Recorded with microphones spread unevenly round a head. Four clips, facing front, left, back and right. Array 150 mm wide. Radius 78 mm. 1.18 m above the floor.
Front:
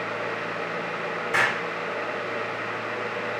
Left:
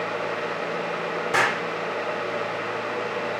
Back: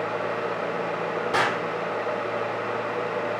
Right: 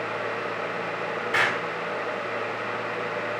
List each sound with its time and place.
1.3 s an explosion: 140° left, 1.8 m